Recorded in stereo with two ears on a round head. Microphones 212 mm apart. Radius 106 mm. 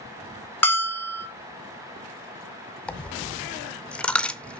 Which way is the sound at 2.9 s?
5° left (ahead or behind).